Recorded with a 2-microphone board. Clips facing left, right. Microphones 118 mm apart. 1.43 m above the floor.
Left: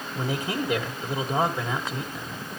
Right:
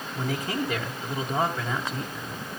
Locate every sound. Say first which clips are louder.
0.1 s a man speaking: left 1 dB; 15° left (ahead or behind), 1.7 m